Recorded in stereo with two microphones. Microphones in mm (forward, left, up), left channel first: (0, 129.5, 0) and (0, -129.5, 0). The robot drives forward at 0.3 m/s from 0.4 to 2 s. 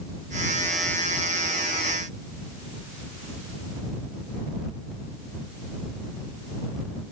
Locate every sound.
Only background noise.